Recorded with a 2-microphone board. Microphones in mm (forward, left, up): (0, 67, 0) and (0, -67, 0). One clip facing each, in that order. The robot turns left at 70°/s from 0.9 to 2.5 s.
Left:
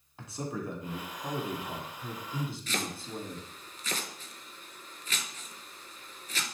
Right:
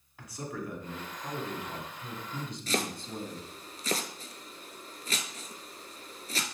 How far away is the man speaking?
About 1.6 m.